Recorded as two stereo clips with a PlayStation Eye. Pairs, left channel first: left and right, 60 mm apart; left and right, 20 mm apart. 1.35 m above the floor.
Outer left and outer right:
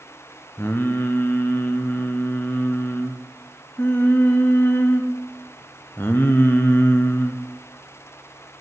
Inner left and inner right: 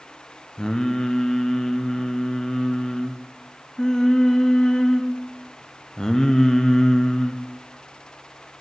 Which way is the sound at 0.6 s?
35° left (ahead or behind).